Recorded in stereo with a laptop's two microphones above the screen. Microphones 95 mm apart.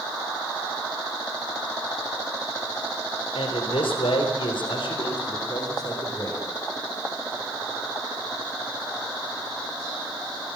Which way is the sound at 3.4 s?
80° left.